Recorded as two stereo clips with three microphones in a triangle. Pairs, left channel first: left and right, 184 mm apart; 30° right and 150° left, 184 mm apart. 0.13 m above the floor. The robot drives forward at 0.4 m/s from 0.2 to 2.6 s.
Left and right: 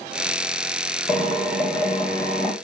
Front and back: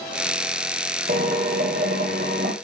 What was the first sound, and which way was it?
A drill, 175° right.